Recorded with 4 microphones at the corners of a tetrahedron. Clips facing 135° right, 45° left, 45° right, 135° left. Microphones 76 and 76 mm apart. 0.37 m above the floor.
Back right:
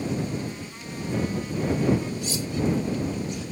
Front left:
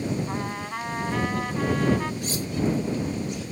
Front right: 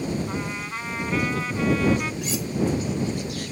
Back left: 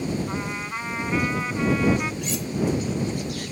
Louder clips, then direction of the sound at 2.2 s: Even, front right 1 dB; 45° left.